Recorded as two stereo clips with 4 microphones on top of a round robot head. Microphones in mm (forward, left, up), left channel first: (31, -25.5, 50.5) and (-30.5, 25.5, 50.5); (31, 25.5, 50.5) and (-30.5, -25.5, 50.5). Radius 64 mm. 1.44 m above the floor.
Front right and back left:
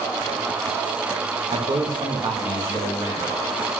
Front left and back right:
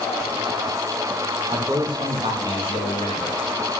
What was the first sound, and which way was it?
A man speaking, 165° left.